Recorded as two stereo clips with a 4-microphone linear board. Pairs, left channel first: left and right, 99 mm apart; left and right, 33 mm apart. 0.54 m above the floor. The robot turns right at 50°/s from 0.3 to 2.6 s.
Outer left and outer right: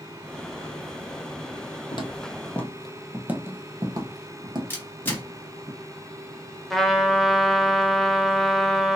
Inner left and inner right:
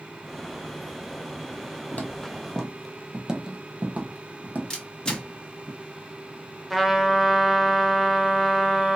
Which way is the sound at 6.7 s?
5° left (ahead or behind).